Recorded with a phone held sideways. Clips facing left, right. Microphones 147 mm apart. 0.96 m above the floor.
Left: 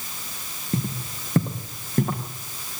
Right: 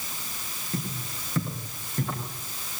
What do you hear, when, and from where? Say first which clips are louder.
0.7 s footsteps: left 6 dB; 45° left (ahead or behind), 4.5 m; by 2.2 s 55° left (ahead or behind), 5.5 m